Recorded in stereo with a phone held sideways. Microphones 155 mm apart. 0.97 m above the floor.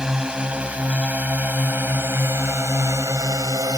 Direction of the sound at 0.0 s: 5° right (ahead or behind).